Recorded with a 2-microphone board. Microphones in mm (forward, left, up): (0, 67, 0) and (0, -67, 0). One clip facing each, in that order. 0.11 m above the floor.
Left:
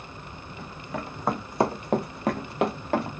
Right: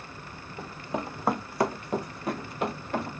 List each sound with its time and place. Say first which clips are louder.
0.6 s running footsteps: right 2 dB; 35° right (ahead or behind), 0.9 m; by 3.1 s 90° left, 1.3 m